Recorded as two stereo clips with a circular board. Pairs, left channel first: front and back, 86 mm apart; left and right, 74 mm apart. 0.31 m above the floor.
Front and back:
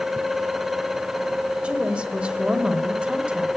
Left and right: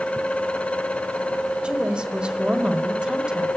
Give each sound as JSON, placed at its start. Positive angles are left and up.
{"t": 1.6, "sound": "a woman speaking", "azimuth_deg": -130, "distance_m": 1.2}